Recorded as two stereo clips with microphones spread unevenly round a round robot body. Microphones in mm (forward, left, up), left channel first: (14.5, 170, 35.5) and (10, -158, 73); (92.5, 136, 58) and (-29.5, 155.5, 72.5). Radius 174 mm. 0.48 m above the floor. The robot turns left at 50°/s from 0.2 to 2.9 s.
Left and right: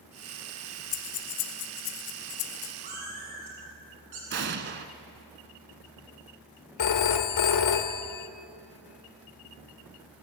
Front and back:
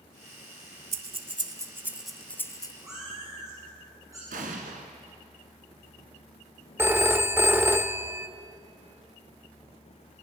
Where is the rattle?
I don't hear a rattle.